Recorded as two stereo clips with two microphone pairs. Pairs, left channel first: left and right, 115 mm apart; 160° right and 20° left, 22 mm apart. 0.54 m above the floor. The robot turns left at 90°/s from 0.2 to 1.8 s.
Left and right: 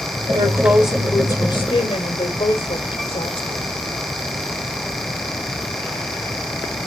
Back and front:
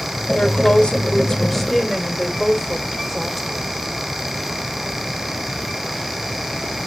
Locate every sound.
0.3 s a woman speaking: 130° right, 2 m; by 3.7 s 100° left, 2 m